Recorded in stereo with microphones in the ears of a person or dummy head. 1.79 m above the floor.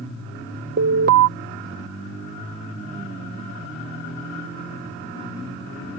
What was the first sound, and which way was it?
An alarm, 60° right (ahead or behind).